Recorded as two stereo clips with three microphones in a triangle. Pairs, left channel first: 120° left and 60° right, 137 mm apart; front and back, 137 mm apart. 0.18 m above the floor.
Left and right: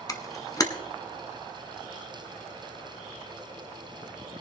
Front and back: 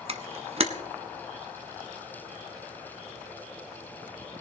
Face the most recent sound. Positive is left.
turn(degrees=170)